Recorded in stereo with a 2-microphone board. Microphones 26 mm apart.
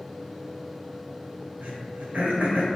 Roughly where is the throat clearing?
Right.